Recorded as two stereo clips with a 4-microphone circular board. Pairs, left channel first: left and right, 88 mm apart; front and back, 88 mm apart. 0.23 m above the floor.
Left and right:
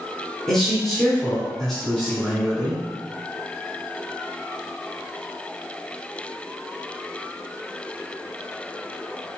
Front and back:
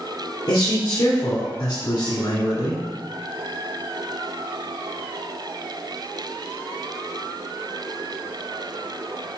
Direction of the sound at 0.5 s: 10° left.